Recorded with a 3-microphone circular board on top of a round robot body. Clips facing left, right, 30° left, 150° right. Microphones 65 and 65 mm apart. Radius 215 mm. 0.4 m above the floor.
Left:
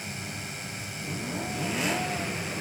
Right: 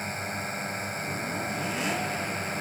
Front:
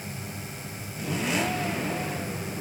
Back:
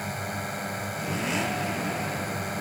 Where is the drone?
135° right.